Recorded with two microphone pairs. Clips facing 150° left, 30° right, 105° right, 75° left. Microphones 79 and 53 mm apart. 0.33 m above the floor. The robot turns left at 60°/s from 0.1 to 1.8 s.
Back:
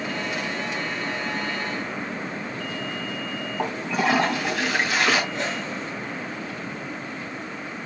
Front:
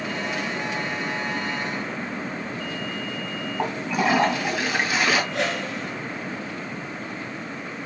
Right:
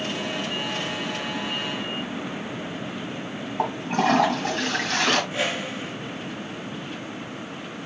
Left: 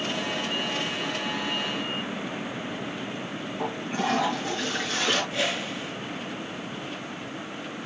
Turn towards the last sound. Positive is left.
turn(degrees=-45)